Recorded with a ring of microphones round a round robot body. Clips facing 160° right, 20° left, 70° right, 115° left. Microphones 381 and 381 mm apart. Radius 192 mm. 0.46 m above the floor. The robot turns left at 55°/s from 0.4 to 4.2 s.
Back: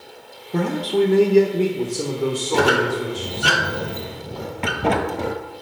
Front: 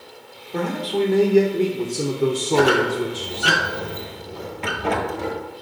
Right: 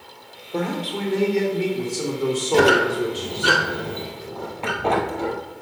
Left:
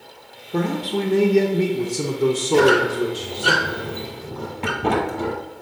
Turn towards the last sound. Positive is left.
turn(degrees=175)